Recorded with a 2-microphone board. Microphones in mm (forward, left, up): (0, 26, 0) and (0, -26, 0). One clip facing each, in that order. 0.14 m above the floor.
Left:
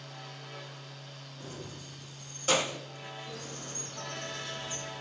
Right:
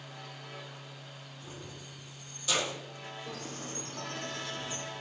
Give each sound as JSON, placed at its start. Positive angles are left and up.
{"t": 1.4, "sound": "keys jangling", "side_deg": 45, "distance_m": 4.0}
{"t": 3.3, "sound": "a bird", "side_deg": -60, "distance_m": 3.5}